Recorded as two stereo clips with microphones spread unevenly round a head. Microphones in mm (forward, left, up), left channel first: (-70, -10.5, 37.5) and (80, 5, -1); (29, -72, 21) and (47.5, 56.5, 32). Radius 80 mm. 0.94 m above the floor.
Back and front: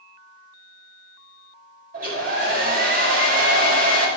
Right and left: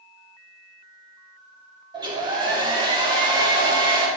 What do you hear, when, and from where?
1.9 s a hair dryer: 25° left, 3 m